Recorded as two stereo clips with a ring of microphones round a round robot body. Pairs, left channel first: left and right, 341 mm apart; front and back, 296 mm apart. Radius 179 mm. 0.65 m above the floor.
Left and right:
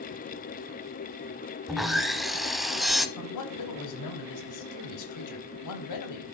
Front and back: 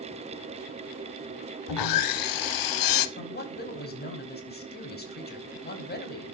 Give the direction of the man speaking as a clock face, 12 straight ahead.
10 o'clock.